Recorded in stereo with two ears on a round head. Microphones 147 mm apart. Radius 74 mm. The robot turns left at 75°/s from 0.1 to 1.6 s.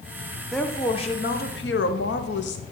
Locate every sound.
0.5 s a woman speaking: straight behind, 0.9 m; by 2.6 s 100° left, 0.9 m